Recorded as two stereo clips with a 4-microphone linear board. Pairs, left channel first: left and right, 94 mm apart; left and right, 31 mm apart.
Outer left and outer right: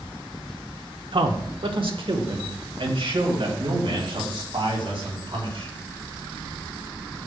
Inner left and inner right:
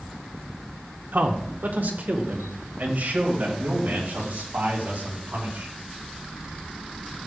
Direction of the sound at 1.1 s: 65° right (ahead or behind).